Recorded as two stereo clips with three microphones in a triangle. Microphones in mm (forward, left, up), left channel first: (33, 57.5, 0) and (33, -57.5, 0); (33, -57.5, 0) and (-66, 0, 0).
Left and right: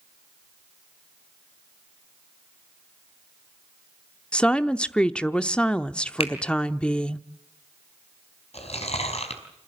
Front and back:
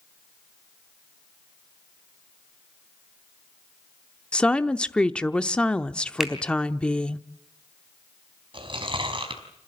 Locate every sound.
4.3 s a woman speaking: 35° left, 0.7 m
6.2 s a finger snap: 65° left, 3 m
8.5 s chewing: 110° left, 4.5 m